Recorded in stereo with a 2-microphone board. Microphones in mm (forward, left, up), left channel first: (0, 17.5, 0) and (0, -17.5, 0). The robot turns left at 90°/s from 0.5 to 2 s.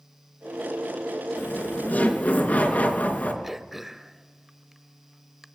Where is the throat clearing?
10° right (ahead or behind), 0.8 m.